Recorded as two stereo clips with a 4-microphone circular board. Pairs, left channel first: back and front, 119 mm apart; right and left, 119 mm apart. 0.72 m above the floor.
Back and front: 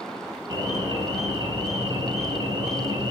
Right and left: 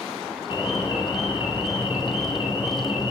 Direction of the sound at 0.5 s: 40° right.